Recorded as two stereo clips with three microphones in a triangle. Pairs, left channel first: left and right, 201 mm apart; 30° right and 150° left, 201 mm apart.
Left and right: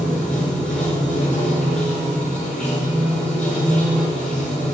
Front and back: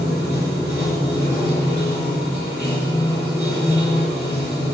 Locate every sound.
0.0 s running water: 5° left, 5 m